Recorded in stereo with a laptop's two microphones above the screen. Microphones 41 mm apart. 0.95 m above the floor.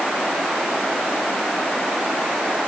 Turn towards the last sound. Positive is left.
No sound to turn to.